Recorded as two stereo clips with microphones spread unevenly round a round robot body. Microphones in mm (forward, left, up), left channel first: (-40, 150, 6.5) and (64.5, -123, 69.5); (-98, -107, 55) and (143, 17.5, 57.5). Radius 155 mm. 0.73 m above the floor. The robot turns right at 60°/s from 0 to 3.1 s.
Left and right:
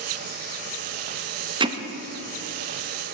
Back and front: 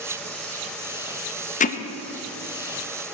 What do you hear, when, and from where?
1.6 s hammering: 150° right, 0.7 m; by 1.8 s 140° right, 0.7 m